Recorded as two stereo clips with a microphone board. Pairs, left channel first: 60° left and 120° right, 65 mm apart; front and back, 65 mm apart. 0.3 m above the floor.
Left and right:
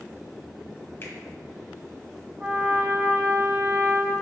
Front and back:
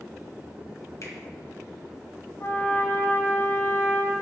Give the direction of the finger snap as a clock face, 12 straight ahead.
12 o'clock.